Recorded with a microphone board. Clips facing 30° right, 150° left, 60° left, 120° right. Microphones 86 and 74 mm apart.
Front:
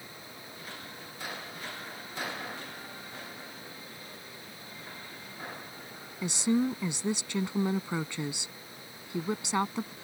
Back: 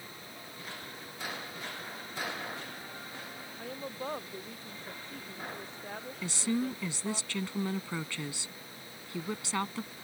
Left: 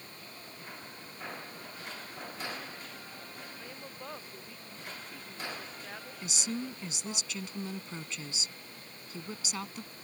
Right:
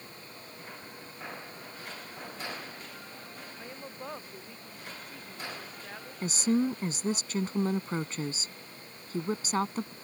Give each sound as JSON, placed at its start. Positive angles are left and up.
{"t": 3.6, "sound": "a woman speaking", "azimuth_deg": 165}
{"t": 6.2, "sound": "a woman speaking", "azimuth_deg": -95}